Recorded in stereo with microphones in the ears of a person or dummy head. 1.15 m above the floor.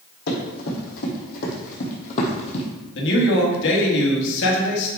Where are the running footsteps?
60° left (ahead or behind), 3.5 m; by 2.7 s 35° left (ahead or behind), 2 m.